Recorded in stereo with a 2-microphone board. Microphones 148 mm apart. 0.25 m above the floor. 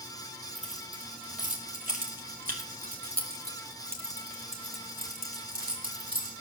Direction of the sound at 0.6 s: 55° right (ahead or behind).